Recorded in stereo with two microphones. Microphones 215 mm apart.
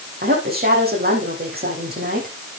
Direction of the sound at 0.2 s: 45° right (ahead or behind).